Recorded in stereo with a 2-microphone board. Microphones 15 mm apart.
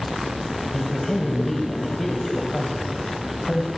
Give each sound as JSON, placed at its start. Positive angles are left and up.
{"t": 0.7, "sound": "a man speaking", "side_deg": 20, "distance_m": 2.5}